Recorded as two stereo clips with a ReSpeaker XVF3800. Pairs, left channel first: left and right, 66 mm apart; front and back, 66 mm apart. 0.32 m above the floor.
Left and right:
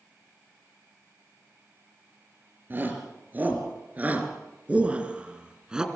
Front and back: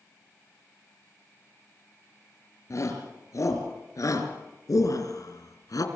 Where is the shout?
35° right, 4.5 m; by 5.9 s 10° right, 3 m.